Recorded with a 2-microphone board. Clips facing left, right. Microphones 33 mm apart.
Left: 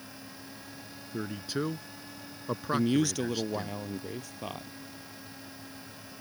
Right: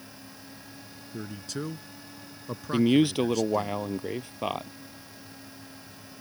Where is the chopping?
I don't hear chopping.